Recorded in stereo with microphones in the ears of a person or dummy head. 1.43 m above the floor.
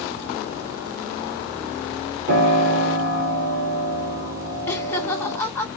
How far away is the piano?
About 0.8 m.